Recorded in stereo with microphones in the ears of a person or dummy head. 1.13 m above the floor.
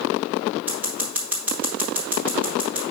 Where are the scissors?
15° right (ahead or behind), 1.2 m.